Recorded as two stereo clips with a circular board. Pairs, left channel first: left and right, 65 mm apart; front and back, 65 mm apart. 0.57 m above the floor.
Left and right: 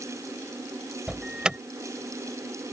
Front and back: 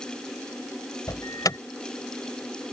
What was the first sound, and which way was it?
An alarm, 10° right.